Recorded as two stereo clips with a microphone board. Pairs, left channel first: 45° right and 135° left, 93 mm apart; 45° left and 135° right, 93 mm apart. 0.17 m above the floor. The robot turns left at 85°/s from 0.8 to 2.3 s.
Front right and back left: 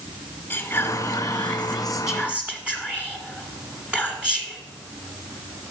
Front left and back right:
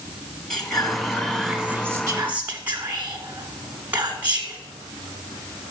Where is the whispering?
35° right, 1.1 m; by 4.6 s 165° right, 1.1 m.